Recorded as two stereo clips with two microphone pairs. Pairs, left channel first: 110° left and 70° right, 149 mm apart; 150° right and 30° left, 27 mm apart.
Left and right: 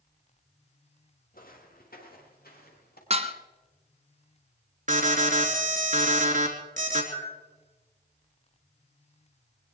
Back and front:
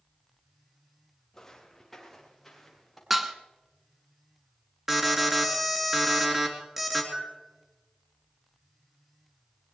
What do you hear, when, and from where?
1.3 s footsteps: 135° left, 3.5 m; by 3.0 s 125° left, 5.5 m
3.1 s dishes clattering: 55° right, 1.2 m
4.9 s an alarm: 50° right, 3.5 m
7.1 s a bell: 40° left, 8.5 m